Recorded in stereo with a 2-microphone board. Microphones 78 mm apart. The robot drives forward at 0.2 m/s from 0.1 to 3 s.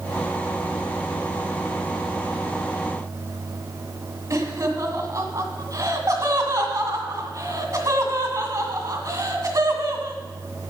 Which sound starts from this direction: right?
Laughter, at 4.3 s.